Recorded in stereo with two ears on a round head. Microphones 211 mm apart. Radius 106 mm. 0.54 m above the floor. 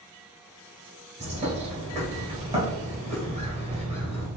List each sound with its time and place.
1.2 s a bird: 30° right (ahead or behind), 1.4 m